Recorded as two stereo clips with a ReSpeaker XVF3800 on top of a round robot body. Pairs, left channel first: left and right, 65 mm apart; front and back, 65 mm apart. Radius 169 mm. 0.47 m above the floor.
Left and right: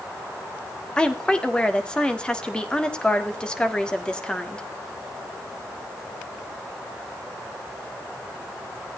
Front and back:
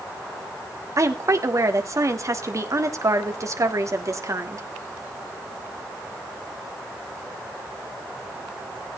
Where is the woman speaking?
165° left, 2 m.